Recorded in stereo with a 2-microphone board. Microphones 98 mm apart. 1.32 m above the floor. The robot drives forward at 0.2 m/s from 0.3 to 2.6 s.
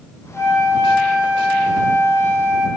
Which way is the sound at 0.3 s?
5° left (ahead or behind).